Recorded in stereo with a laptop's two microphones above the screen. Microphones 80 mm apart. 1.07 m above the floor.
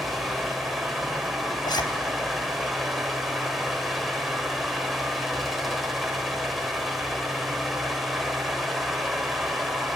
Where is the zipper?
80° left, 3 m.